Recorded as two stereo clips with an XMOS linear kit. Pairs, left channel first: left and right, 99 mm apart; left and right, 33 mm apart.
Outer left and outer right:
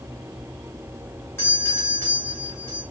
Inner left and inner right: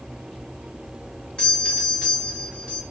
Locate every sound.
1.4 s a doorbell: 25° left (ahead or behind), 1.6 m